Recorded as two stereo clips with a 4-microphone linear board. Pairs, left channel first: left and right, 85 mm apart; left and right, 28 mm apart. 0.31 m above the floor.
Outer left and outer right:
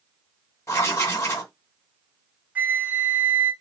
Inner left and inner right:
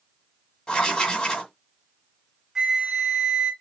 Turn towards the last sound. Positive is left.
turn(degrees=-20)  # may be behind; listen again after turning